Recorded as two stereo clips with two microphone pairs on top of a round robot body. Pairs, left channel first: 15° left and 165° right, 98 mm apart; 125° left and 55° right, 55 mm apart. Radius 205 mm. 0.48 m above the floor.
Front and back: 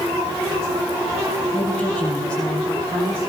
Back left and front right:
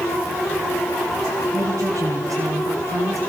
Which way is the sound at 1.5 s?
70° right.